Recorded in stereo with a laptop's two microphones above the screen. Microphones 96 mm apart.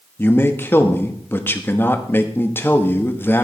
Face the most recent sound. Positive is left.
turn(degrees=20)  # may be behind; listen again after turning